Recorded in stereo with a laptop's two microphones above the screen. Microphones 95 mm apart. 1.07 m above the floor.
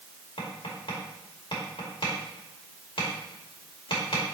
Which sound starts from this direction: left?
Tapping, at 0.4 s.